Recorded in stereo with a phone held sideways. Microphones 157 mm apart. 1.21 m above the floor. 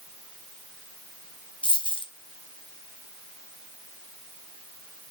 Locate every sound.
1.6 s a dropped coin: 35° left (ahead or behind), 1.3 m